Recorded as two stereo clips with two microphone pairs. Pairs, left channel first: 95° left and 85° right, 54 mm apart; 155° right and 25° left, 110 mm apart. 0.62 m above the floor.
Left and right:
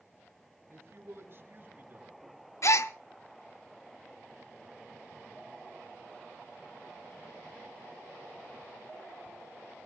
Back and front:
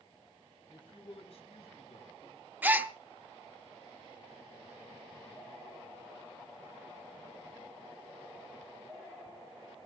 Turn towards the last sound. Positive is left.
turn(degrees=95)